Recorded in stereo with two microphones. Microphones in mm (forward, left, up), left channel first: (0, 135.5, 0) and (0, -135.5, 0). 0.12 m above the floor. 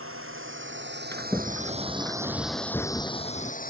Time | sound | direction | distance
0.0 | a drone | 55° right (ahead or behind) | ?
1.1 | a sliding door | 10° left (ahead or behind) | ?